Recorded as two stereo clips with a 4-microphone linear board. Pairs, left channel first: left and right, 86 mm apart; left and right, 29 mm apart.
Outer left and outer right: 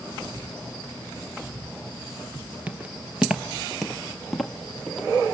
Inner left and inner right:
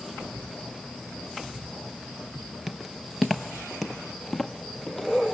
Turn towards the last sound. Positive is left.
turn(degrees=5)  # may be behind; listen again after turning